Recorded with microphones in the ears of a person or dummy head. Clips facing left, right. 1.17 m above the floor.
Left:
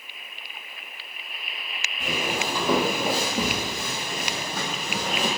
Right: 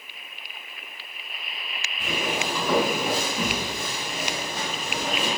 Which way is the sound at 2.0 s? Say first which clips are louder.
Even; centre (ahead or behind).